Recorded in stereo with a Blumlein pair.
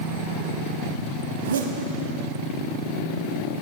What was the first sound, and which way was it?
A zipper, 65° right.